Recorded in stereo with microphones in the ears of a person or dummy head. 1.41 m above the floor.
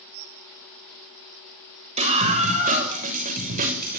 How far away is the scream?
About 7 m.